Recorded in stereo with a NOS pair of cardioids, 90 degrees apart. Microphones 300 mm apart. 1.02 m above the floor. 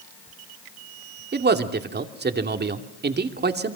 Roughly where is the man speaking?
Ahead right.